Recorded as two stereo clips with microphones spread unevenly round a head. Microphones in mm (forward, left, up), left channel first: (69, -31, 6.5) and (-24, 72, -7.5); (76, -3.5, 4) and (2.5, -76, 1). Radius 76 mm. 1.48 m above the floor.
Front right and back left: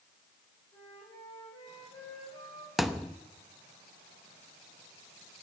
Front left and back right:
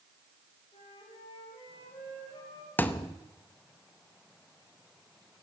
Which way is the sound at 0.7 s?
5° left.